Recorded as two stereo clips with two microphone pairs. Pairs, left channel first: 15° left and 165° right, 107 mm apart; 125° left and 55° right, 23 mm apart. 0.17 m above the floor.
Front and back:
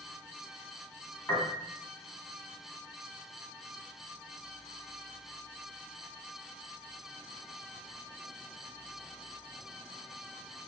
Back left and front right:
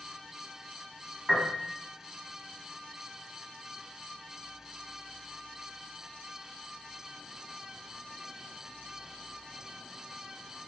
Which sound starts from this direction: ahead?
A piano, at 1.3 s.